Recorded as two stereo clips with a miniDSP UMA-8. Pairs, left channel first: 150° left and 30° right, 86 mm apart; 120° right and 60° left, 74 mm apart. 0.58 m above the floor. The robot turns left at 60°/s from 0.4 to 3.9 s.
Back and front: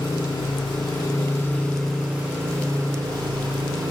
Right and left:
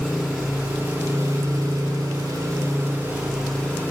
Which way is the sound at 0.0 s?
150° left.